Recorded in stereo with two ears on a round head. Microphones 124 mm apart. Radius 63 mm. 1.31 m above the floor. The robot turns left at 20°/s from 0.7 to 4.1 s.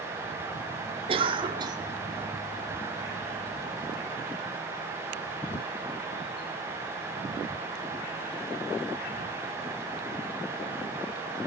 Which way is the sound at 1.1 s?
40° right (ahead or behind).